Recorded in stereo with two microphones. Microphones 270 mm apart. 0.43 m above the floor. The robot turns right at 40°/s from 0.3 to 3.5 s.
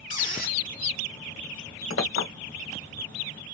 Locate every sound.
0.1 s a squeak: 30° left (ahead or behind), 0.9 m; by 0.6 s 40° left (ahead or behind), 0.9 m
1.9 s a clink: 55° left (ahead or behind), 1.1 m; by 2.3 s 50° left (ahead or behind), 1.1 m